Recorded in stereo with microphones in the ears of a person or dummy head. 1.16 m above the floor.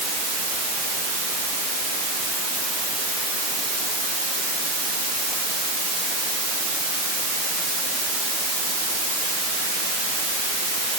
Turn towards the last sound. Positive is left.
No sound to turn to.